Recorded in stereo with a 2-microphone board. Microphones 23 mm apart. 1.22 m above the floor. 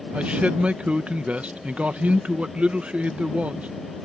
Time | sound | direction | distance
0.1 | a man speaking | 70° right (ahead or behind) | ?